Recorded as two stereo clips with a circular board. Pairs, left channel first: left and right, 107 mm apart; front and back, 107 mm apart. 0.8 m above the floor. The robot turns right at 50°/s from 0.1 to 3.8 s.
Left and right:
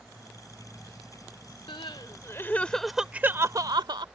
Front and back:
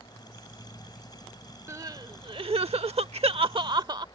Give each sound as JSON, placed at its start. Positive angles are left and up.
{"t": 1.7, "sound": "crying", "azimuth_deg": 120}